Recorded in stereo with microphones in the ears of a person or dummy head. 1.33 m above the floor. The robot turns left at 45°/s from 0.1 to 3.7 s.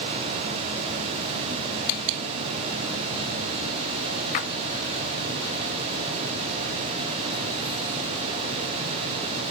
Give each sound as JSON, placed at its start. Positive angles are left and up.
{"t": 4.3, "sound": "a splash", "side_deg": 45, "distance_m": 0.5}